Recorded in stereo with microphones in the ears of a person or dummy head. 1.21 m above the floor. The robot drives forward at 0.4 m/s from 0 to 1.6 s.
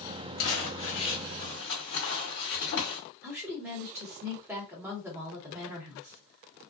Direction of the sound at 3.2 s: 10° right (ahead or behind).